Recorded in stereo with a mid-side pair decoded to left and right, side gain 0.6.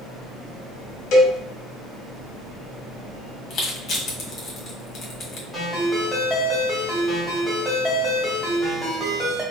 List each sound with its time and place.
1.1 s a cowbell: 70° left, 1.0 m
3.5 s crushing: 40° left, 1.6 m
5.5 s a ringtone: straight ahead, 1.8 m